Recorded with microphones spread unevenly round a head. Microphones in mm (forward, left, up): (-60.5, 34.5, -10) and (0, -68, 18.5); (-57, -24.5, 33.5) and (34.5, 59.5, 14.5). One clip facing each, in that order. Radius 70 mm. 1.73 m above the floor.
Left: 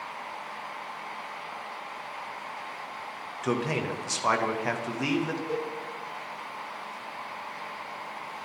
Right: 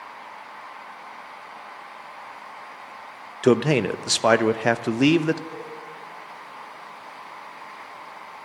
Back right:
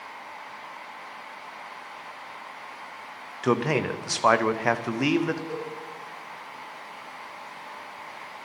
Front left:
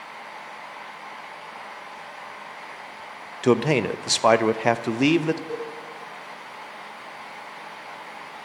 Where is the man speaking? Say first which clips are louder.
Right 10 dB, front left 4 dB; 25° right, 0.6 m.